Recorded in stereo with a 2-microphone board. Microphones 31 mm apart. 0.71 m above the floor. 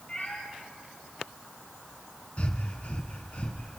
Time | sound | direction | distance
0.1 | a cat meowing | 30° left (ahead or behind) | 4 m
2.4 | breathing | 40° left (ahead or behind) | 2.5 m